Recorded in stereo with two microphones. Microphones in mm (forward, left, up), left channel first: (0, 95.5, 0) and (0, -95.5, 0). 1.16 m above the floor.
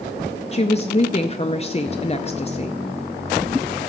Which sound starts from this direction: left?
A woman speaking, at 0.5 s.